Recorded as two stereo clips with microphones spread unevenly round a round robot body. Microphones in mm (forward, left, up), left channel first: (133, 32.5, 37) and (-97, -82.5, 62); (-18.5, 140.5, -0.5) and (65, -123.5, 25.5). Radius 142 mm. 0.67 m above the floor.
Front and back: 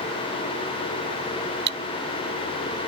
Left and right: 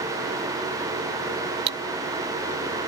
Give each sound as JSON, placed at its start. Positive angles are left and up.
{"t": 1.7, "sound": "cutlery clinking", "azimuth_deg": -105}